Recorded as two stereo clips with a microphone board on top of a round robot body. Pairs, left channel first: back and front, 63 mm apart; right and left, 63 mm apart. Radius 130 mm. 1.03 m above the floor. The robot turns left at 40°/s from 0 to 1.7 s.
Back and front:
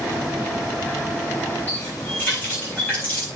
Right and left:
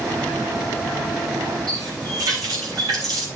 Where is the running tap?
115° left, 8 m.